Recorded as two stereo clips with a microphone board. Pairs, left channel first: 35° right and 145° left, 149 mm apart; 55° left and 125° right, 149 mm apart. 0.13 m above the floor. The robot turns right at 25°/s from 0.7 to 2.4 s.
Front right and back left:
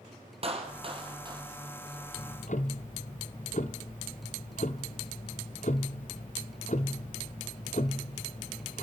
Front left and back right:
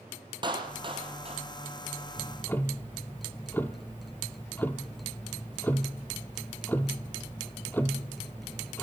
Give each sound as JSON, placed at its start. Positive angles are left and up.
{"t": 0.4, "sound": "a clap", "azimuth_deg": -175, "distance_m": 2.0}
{"t": 2.2, "sound": "ticking", "azimuth_deg": -25, "distance_m": 0.8}